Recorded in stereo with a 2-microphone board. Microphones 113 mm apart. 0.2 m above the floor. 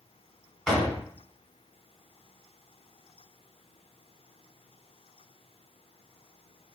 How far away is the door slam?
About 1.5 m.